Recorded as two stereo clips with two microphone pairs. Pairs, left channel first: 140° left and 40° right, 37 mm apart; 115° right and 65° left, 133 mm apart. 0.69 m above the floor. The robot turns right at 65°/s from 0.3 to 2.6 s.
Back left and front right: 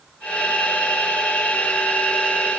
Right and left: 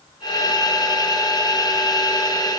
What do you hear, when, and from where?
Only background noise.